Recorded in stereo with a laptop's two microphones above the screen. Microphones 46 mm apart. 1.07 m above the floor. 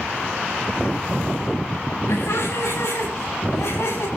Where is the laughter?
80° left, 8.5 m; by 4.1 s 85° left, 8.5 m.